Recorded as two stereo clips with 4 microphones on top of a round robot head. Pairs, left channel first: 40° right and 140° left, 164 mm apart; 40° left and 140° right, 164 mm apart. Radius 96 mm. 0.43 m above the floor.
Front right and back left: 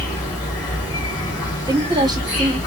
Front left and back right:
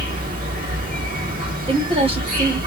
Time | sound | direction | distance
0.0 | an insect | 105° right | 2.5 m
1.7 | a woman speaking | 170° right | 1.3 m